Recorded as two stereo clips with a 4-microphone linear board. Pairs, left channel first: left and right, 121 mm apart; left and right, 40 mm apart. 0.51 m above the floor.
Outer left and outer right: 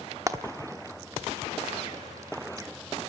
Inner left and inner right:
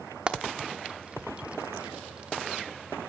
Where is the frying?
30° right (ahead or behind), 1.0 m.